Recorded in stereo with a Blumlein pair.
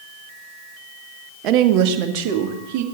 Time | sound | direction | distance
1.4 | a woman speaking | 40° right | 0.9 m